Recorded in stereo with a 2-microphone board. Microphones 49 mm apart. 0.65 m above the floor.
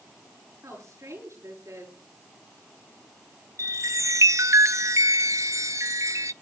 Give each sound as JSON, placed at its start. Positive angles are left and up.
{"t": 0.6, "sound": "a woman speaking", "side_deg": -75, "distance_m": 10.0}
{"t": 3.6, "sound": "a chime", "side_deg": -75, "distance_m": 0.5}